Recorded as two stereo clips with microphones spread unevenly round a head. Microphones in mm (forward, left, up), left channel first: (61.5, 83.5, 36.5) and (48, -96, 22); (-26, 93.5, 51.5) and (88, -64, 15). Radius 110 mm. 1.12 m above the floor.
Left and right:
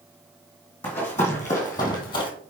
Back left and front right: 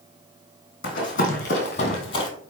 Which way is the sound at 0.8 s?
165° left.